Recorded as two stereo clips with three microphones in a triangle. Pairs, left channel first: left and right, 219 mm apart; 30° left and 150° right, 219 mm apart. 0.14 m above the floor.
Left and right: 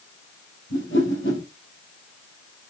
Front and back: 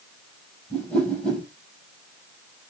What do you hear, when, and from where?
0.7 s a whoosh: 115° left, 2.5 m